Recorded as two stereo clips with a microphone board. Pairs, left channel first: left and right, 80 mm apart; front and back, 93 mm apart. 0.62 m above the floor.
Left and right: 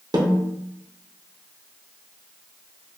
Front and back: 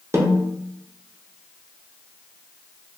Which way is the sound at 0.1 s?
120° right.